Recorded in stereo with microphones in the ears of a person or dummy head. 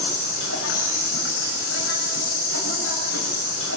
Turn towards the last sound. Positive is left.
turn(degrees=80)